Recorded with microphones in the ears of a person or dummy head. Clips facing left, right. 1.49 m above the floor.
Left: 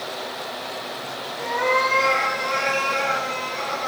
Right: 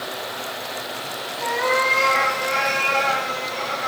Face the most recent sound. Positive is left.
turn(degrees=55)  # may be behind; listen again after turning